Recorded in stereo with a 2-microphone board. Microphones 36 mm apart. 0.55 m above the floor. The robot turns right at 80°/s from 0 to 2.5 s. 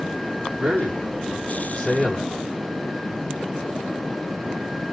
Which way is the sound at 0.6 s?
40° right (ahead or behind).